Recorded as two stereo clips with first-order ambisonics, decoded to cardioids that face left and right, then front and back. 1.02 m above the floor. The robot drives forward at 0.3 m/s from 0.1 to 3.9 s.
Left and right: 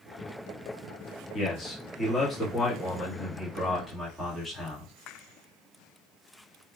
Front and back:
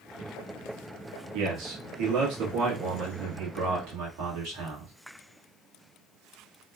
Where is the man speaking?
150° left, 0.9 m; by 4.9 s 165° left, 1.6 m.